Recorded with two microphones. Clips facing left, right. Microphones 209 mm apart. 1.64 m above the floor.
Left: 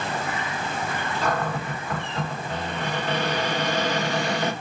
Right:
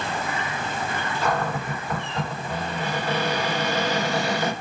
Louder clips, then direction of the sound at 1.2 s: Right 1 dB; 10° right (ahead or behind).